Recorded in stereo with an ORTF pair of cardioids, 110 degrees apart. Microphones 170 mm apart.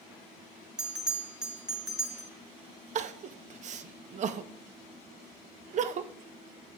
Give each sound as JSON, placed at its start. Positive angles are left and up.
{"t": 0.8, "sound": "a bell", "azimuth_deg": -5, "distance_m": 1.5}
{"t": 3.0, "sound": "crying", "azimuth_deg": -45, "distance_m": 0.6}